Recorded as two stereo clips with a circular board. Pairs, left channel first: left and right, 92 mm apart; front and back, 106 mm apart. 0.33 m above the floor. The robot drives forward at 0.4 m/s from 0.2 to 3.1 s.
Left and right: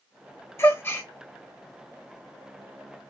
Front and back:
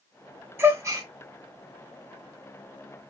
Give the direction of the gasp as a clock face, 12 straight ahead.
8 o'clock.